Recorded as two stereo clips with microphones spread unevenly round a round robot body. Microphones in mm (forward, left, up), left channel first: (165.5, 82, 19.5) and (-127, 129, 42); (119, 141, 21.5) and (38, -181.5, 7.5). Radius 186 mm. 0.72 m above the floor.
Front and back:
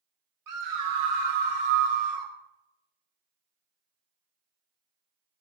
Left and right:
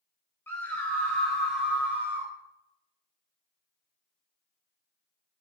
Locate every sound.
0.5 s a scream: 160° left, 3.5 m; by 2.3 s 175° left, 2.5 m